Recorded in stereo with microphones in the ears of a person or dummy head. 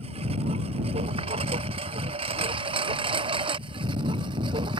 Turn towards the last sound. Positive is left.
turn(degrees=-25)  # may be behind; listen again after turning